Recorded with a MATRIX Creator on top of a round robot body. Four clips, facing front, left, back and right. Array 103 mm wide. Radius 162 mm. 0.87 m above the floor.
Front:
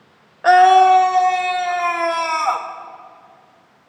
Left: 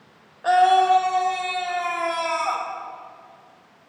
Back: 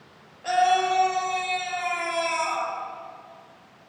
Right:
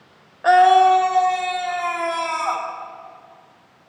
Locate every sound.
0.4 s a scream: 20° right, 1.8 m; by 2.7 s 5° right, 3.5 m